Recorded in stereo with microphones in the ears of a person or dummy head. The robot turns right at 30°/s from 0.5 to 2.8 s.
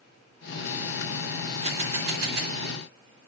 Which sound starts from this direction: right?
A camera shutter, at 1.6 s.